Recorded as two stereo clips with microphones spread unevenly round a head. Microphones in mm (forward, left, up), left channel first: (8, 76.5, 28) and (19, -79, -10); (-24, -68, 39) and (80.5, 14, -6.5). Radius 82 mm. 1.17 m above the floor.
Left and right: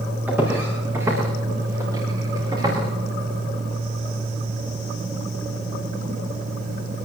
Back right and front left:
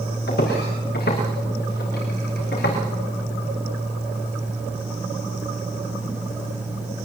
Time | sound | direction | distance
0.3 | footsteps | 165° right | 9 m